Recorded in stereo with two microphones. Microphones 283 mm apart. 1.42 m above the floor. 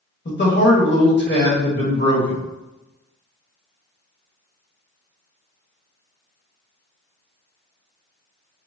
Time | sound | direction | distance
0.2 | a man speaking | 35° left (ahead or behind) | 1.2 m